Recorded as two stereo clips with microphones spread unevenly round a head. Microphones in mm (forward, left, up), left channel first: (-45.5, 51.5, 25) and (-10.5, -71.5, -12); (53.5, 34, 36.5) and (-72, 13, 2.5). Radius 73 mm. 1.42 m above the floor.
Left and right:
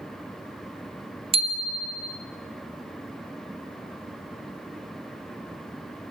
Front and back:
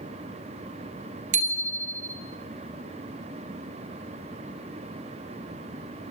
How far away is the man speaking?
No man speaking in this recording.